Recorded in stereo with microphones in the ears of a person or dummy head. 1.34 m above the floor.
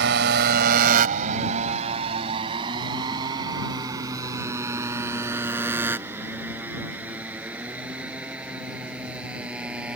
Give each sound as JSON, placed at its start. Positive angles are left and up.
{"t": 0.0, "sound": "a motorcycle", "side_deg": -65}